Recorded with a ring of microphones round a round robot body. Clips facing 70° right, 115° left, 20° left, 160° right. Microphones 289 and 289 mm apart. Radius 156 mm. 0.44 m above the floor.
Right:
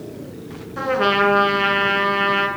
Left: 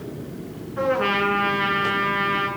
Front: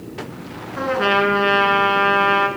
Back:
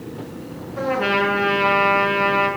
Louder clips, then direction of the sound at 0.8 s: Right 2 dB, front 2 dB; 40° right.